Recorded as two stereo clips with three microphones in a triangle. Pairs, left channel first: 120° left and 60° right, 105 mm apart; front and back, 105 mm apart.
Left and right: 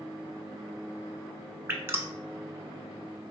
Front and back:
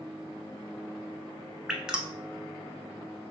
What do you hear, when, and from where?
1.7 s dripping: 105° right, 0.5 m